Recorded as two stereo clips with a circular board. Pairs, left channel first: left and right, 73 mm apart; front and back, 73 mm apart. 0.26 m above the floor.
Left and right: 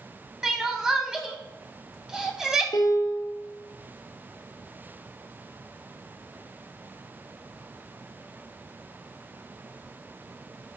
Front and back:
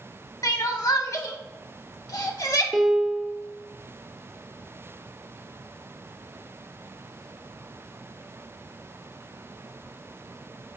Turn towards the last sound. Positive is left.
turn(degrees=95)